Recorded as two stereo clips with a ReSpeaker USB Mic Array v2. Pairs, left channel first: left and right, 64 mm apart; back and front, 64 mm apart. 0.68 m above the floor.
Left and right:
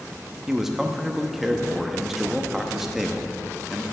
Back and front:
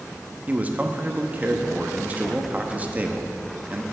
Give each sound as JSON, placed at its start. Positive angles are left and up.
{"t": 0.5, "sound": "a man speaking", "azimuth_deg": -10, "distance_m": 0.8}